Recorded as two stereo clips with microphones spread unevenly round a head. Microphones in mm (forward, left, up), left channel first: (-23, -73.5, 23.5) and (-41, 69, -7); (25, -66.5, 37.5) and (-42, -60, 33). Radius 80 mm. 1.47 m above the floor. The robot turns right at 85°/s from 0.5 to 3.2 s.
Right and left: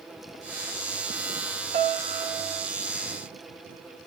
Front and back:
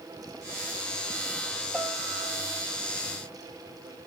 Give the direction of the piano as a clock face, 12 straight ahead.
9 o'clock.